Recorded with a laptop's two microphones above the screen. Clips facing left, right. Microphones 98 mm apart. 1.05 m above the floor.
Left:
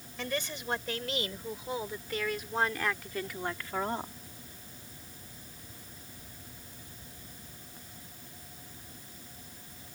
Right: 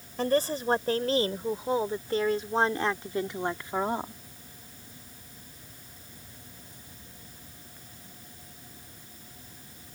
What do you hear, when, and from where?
0.2 s a woman speaking: 40° right (ahead or behind); by 4.1 s 15° right (ahead or behind)